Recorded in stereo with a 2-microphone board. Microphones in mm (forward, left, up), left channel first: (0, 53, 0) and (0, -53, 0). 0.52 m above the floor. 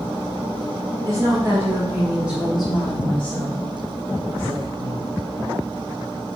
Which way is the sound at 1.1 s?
30° right (ahead or behind).